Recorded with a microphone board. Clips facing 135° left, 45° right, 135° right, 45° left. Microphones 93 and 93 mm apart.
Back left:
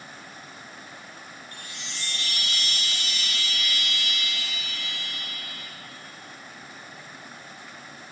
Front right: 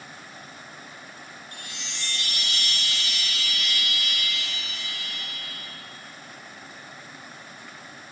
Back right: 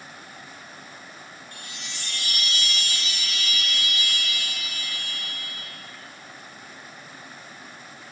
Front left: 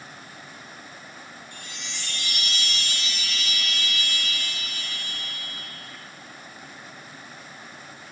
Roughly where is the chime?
Behind.